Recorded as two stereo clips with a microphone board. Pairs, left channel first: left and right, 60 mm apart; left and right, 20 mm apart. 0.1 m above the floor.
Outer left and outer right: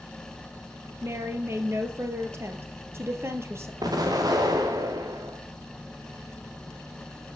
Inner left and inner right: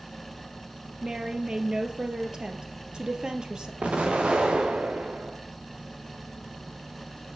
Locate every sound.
1.0 s a woman speaking: 45° right (ahead or behind), 2.5 m
3.8 s an explosion: 80° right, 3.5 m